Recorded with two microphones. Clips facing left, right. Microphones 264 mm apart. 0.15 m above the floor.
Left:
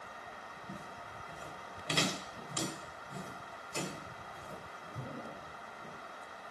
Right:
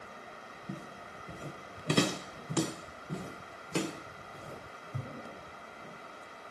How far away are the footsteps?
About 1.3 m.